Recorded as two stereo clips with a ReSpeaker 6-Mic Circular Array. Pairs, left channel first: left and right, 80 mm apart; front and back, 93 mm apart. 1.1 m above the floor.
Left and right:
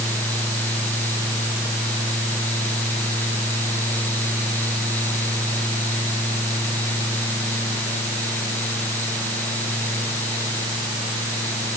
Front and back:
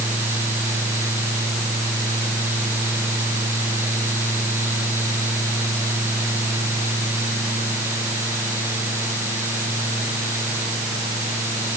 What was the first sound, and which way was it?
Only background noise.